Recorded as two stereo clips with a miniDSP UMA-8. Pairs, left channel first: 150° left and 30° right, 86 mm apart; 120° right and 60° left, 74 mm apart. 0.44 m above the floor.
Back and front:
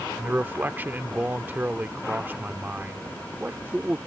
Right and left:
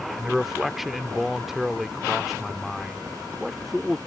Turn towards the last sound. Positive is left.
turn(degrees=-20)